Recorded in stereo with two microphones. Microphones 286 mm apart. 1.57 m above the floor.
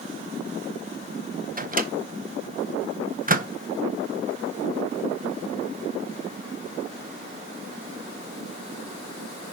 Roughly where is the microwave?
Right.